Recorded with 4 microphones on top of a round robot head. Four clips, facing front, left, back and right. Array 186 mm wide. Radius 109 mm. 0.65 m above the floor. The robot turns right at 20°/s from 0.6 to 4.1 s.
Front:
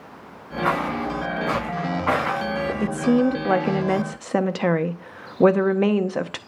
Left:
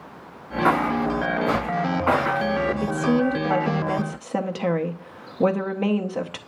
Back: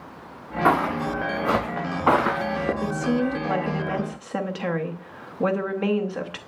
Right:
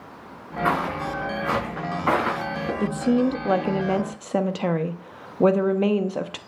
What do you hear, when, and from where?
0.7 s footsteps: 170° left, 3.5 m; by 2.7 s straight behind, 5.5 m
2.8 s a woman speaking: 35° right, 0.8 m; by 6.4 s 10° right, 0.8 m